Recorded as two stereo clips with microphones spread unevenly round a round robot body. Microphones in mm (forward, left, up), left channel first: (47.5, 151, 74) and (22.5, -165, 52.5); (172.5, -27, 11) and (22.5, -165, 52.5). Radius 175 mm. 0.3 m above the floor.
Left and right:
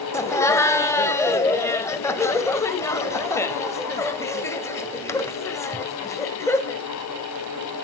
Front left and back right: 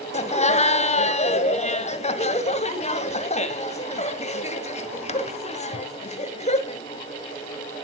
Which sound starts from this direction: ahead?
Laughter, at 0.1 s.